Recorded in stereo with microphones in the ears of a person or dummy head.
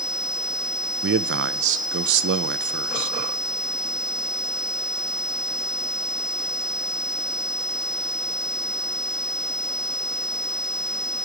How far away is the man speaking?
About 0.9 m.